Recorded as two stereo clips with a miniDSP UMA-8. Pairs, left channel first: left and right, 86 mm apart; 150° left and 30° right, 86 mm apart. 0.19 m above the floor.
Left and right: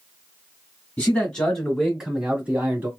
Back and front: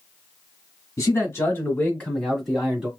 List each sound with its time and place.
1.0 s a man speaking: 150° left, 1.7 m; by 2.9 s 90° right, 1.5 m